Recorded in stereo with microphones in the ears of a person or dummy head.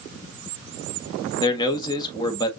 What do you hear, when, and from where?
1.4 s a man speaking: 25° left (ahead or behind), 1.3 m